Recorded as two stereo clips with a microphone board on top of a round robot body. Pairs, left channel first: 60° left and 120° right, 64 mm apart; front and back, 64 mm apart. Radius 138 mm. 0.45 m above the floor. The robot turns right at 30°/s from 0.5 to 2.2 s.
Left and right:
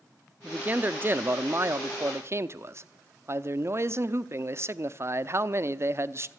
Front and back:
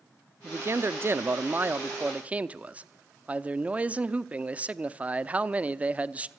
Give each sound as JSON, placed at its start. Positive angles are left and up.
{"t": 0.4, "sound": "a man speaking", "azimuth_deg": -175, "distance_m": 0.9}